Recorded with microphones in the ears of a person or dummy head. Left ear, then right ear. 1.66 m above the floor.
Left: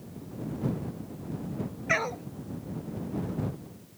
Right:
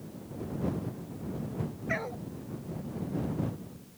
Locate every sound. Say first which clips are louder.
1.9 s a dog barking: left 7 dB; 50° left (ahead or behind)